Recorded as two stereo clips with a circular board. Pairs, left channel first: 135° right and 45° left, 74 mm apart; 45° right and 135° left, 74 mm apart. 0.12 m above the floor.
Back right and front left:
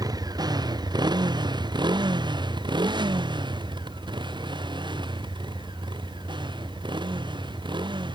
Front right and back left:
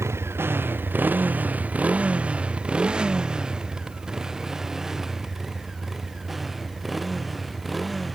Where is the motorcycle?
80° left; by 8.1 s 45° left.